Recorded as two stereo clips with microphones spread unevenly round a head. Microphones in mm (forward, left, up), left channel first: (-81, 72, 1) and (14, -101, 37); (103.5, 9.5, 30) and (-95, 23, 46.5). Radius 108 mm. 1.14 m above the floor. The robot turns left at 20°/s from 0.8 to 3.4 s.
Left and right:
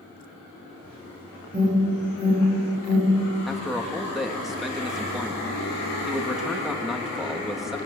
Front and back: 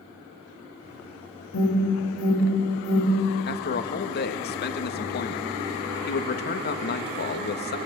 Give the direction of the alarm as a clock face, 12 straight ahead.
12 o'clock.